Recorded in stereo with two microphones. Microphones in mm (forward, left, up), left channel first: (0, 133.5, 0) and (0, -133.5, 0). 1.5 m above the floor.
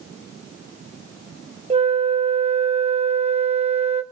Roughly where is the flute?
Right.